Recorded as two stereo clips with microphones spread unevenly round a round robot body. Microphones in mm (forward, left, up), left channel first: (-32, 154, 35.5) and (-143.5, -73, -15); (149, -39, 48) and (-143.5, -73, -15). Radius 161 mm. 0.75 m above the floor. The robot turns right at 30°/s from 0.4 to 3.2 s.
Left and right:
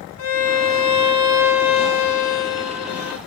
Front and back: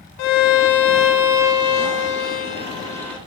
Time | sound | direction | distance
0.2 | a violin | 15° left | 1.0 m